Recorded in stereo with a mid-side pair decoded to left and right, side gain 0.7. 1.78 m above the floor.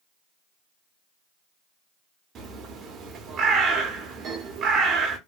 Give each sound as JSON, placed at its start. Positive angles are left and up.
{"t": 2.4, "sound": "a bird", "azimuth_deg": -45, "distance_m": 0.8}